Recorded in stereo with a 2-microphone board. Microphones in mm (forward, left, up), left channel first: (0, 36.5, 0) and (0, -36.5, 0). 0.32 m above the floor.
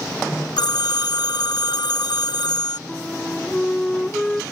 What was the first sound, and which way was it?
A phone ringing, 75° left (ahead or behind).